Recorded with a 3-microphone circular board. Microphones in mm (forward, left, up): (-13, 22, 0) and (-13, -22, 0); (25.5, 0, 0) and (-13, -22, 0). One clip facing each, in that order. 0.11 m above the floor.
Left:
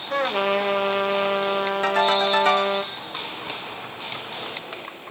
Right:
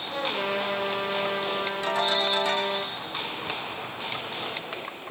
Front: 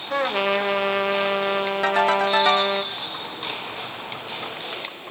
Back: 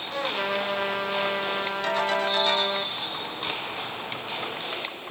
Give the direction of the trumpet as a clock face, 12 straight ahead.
10 o'clock.